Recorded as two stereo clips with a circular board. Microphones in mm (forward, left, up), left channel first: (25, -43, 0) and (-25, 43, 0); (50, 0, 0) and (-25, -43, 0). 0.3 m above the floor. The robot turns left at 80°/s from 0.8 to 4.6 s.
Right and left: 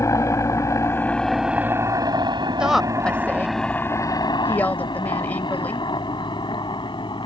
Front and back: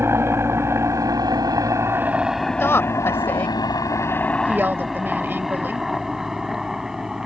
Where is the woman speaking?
45° left; by 5.9 s 115° right.